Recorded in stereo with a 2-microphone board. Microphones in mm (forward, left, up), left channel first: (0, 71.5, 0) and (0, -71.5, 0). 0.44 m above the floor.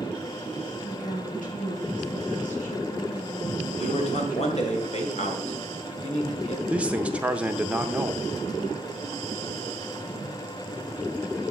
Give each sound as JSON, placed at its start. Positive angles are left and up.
{"t": 0.8, "sound": "a woman speaking", "side_deg": 70, "distance_m": 4.0}
{"t": 3.8, "sound": "a man speaking", "side_deg": 50, "distance_m": 2.5}
{"t": 6.7, "sound": "a man speaking", "side_deg": -10, "distance_m": 0.8}